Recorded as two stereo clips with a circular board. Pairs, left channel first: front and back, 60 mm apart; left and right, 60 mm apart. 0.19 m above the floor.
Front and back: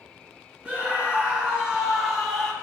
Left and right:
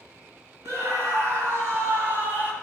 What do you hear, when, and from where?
0.7 s a scream: 115° right, 2.5 m; by 2.5 s 80° right, 1.5 m